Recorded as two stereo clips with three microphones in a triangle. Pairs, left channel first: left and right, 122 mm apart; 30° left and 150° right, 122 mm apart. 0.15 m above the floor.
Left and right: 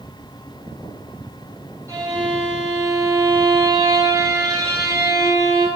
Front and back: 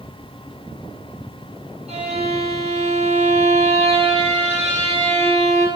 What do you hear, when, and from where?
1.9 s a violin: 145° right, 4.5 m